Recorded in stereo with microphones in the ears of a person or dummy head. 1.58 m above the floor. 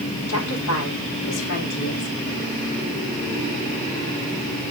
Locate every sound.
0.3 s a woman speaking: 85° left, 4 m; by 2.1 s 70° left (ahead or behind), 6 m